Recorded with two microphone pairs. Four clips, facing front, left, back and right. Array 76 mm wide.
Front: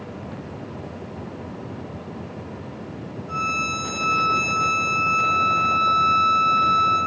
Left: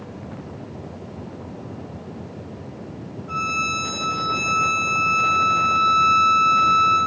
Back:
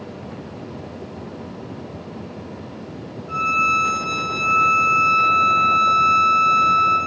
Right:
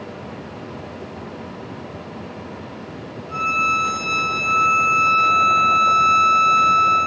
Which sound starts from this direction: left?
A violin, at 3.3 s.